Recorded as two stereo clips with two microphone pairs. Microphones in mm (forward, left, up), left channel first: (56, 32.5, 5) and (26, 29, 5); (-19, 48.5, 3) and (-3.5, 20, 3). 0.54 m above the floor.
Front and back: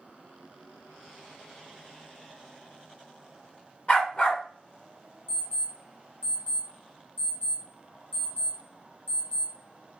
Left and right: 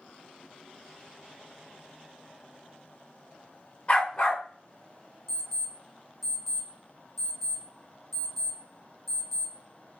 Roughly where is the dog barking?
Ahead left.